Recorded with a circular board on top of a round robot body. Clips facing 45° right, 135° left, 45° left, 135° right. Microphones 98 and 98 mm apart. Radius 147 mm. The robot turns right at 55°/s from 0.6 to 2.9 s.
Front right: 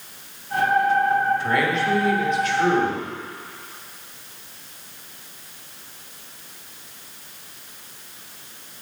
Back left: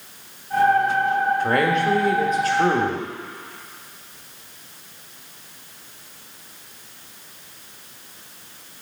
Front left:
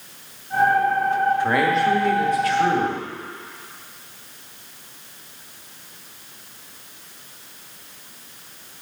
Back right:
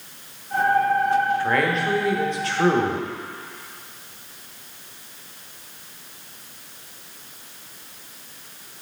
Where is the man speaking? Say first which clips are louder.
Back left 2 dB, front left 3 dB; 115° left, 1.8 m; by 3.1 s 165° right, 1.8 m.